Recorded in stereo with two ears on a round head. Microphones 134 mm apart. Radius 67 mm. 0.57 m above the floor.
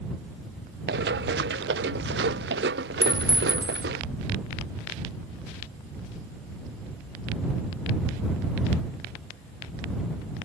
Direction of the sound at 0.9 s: 75° right (ahead or behind).